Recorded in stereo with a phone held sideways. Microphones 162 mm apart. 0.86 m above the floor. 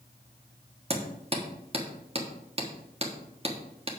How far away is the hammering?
About 1.2 m.